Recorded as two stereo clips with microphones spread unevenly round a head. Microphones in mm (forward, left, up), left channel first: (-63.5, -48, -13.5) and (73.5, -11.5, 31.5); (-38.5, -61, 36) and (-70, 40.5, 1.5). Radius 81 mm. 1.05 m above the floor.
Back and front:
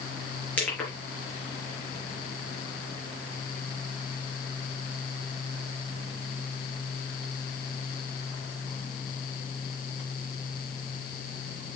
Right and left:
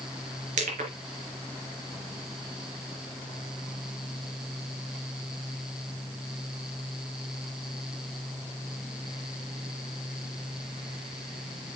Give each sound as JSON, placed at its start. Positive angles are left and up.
{"t": 0.6, "sound": "crushing", "azimuth_deg": 110, "distance_m": 4.0}